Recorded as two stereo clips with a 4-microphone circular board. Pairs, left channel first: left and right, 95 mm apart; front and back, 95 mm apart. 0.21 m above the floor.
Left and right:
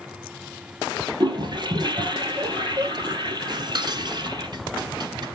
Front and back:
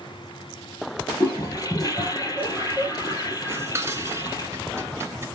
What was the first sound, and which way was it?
A toilet flushing, 50° right.